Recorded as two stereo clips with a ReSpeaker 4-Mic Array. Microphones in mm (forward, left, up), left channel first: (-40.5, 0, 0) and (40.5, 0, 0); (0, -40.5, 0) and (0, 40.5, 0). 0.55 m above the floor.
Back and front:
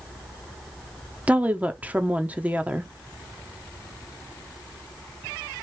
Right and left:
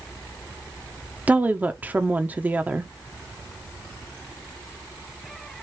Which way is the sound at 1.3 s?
50° left.